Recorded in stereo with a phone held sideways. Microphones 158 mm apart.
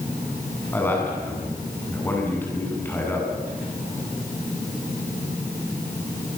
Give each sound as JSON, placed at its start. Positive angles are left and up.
{"t": 0.7, "sound": "a man speaking", "side_deg": 15, "distance_m": 7.5}